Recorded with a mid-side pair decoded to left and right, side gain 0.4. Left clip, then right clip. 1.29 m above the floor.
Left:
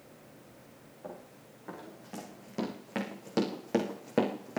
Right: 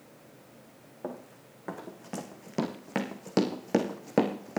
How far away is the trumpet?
I don't hear a trumpet.